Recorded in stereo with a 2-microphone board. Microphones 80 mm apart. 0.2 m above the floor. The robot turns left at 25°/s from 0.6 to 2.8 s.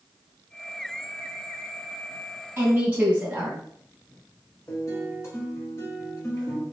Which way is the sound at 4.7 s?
35° left (ahead or behind).